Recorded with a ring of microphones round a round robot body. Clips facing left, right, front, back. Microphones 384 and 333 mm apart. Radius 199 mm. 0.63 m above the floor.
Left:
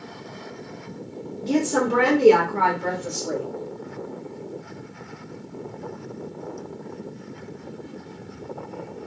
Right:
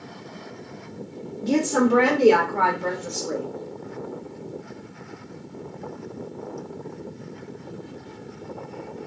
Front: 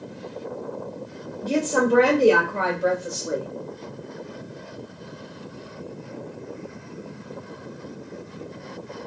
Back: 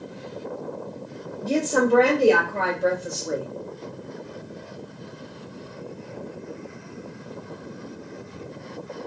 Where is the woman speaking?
80° right, 1.1 m; by 3.5 s 80° left, 1.5 m.